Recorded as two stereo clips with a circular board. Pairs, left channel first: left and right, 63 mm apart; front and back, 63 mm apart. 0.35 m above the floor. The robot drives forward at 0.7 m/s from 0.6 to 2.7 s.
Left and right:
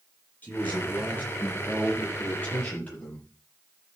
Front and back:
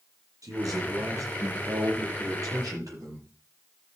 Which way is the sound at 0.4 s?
150° left.